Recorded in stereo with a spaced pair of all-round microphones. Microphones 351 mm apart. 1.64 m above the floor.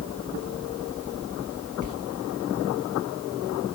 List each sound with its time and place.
1.8 s a sliding door: 55° right (ahead or behind), 1.3 m